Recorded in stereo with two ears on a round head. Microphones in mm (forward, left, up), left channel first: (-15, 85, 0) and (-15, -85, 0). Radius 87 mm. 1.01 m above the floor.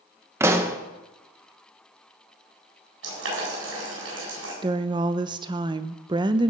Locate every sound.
0.4 s a pop: 15° right (ahead or behind), 0.9 m
3.0 s boiling: 75° right (ahead or behind), 8 m
4.6 s a woman speaking: 25° right (ahead or behind), 0.5 m